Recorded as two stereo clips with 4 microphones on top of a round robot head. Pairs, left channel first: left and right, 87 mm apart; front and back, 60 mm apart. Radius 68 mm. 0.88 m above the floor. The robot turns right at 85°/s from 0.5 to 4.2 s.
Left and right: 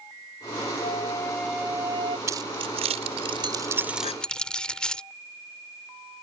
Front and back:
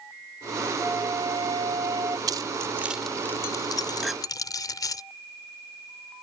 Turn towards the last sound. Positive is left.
turn(degrees=100)